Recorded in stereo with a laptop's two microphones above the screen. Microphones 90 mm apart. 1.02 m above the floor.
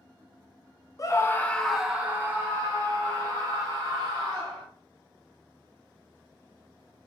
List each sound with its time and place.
1.0 s a scream: 40° left (ahead or behind), 0.7 m; by 4.7 s 60° right (ahead or behind), 1.8 m